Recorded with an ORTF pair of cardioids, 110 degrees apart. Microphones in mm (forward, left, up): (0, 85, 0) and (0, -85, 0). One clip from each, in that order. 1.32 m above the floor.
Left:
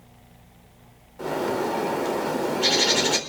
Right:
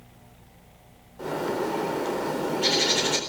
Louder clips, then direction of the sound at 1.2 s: Left 2 dB; 15° left.